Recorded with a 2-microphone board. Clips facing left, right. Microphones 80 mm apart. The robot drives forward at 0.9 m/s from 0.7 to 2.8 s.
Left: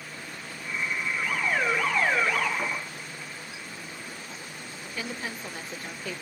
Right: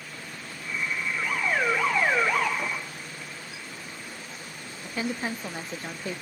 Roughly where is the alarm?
Centre.